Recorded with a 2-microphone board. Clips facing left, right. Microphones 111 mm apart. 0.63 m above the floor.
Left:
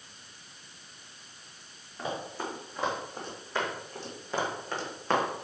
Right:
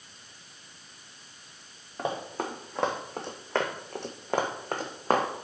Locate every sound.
2.0 s running footsteps: 55° right (ahead or behind), 2.5 m; by 5.5 s 35° right (ahead or behind), 2 m